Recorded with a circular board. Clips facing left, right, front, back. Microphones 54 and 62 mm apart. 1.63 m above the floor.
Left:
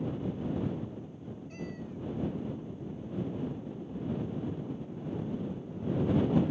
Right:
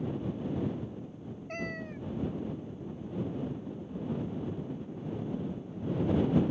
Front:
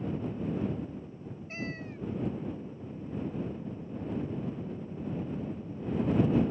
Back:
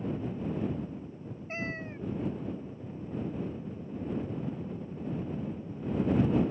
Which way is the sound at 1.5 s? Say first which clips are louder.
Right 5 dB, back 2 dB; 120° right.